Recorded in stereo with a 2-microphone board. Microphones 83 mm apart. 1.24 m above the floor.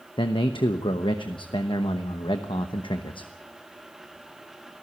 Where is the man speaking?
80° left, 1.0 m.